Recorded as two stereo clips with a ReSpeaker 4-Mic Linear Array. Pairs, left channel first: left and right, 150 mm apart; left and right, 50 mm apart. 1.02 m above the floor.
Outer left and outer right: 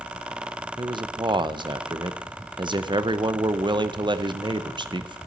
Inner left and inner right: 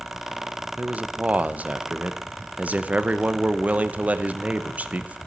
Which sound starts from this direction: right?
A man speaking, at 0.8 s.